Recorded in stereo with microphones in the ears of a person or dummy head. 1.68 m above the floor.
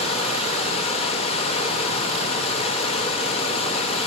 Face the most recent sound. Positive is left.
turn(degrees=25)  # may be behind; listen again after turning